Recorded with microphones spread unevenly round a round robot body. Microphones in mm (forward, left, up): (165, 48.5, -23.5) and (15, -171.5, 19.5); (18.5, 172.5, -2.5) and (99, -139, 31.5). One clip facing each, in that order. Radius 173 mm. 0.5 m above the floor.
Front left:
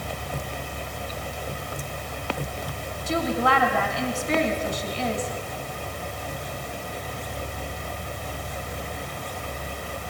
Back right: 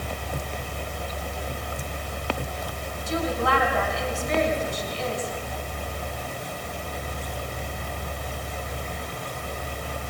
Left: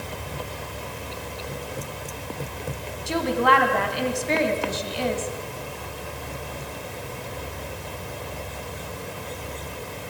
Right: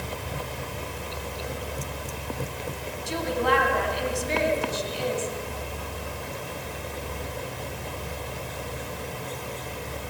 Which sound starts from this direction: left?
A woman speaking, at 3.1 s.